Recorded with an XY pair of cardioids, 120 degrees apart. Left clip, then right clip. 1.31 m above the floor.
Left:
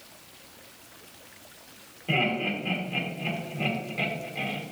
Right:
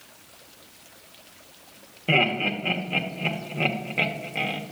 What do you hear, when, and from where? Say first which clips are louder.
2.1 s laughter: right 4 dB; 50° right, 1.5 m